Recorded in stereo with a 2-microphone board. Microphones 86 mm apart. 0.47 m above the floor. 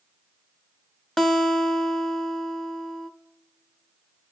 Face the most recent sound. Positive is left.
turn(degrees=5)  # may be behind; listen again after turning